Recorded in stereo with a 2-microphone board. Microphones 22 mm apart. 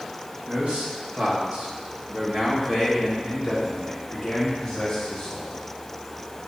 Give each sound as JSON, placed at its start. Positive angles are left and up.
{"t": 0.5, "sound": "a man speaking", "side_deg": -75, "distance_m": 3.0}